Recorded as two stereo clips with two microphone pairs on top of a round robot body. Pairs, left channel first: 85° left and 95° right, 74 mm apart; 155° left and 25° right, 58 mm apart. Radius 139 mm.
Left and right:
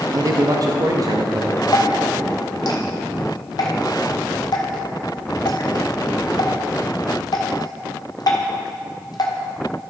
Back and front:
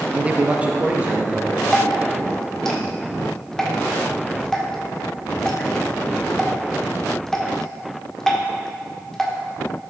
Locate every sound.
0.1 s a man speaking: 90° right, 0.7 m
1.7 s dripping: 75° left, 1.5 m